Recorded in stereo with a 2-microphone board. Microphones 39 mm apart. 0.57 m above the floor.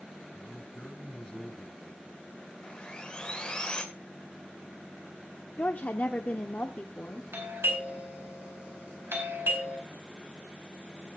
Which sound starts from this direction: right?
A doorbell, at 7.3 s.